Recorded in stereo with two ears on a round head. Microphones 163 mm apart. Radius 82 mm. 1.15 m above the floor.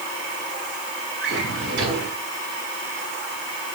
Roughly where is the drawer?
Right.